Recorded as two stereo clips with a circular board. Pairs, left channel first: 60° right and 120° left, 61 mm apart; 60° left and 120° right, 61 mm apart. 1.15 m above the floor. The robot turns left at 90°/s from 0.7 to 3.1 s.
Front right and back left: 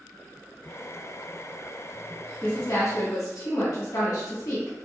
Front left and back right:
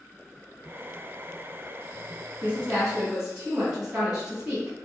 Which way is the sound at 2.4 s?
15° left.